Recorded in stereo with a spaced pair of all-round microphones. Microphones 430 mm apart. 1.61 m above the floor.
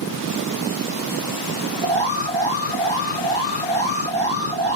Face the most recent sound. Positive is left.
turn(degrees=75)  # may be behind; listen again after turning